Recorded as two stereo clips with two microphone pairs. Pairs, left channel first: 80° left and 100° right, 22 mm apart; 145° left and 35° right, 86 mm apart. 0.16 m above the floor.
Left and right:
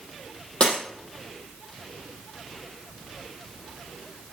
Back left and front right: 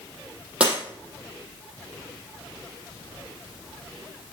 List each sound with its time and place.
0.6 s breaking glass: 40° left, 4 m